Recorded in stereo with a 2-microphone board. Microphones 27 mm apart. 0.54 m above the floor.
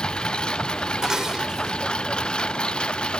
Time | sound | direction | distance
0.0 | a lawn mower | 35° left (ahead or behind) | ?
1.0 | dishes clattering | 25° right (ahead or behind) | ?